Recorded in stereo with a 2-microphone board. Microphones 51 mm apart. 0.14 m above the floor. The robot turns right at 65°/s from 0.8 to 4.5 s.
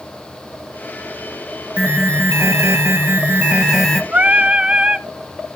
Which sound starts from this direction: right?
Singing, at 4.1 s.